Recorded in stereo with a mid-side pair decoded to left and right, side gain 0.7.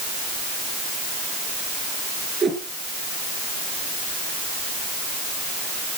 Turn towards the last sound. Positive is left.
turn(degrees=-20)